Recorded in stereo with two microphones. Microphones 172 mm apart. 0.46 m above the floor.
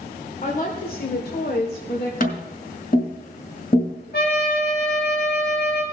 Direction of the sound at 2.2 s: 55° left (ahead or behind).